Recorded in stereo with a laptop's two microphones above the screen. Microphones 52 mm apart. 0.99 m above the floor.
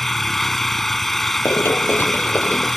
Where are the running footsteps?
50° left (ahead or behind); by 2.8 s 30° left (ahead or behind).